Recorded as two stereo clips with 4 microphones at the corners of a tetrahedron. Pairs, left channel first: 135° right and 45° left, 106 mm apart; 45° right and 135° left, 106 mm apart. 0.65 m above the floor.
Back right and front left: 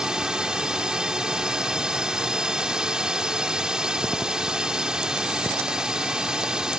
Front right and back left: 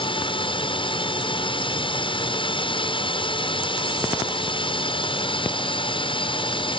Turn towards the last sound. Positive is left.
turn(degrees=-35)